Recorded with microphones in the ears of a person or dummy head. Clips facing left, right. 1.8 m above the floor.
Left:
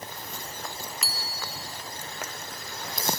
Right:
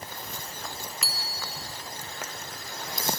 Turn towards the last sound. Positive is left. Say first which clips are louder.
# left 1 dB
turn(degrees=0)  # may be behind; listen again after turning